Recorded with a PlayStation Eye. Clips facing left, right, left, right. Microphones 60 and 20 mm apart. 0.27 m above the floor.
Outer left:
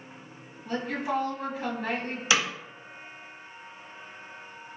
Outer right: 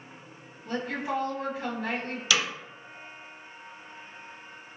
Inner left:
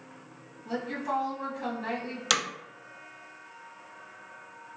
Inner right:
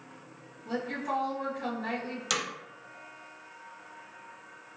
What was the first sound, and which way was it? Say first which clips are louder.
A woman speaking: outer left 1 dB, inner left 1 dB; 15° left (ahead or behind).